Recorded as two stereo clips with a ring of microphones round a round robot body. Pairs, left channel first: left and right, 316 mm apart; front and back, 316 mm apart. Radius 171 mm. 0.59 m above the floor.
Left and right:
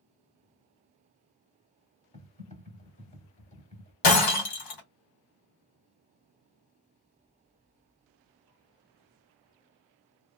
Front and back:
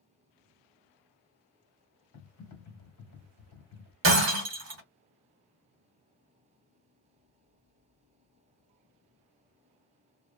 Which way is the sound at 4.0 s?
125° left.